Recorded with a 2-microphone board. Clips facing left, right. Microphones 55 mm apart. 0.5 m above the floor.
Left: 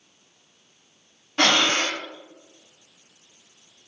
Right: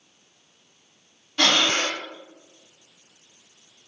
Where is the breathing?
35° left (ahead or behind), 0.5 m.